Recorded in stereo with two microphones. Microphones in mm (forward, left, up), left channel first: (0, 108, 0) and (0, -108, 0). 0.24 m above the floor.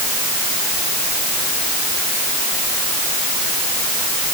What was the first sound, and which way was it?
Only background noise.